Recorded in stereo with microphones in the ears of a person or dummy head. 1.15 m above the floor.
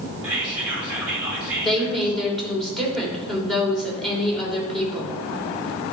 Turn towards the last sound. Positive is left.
turn(degrees=0)  # may be behind; listen again after turning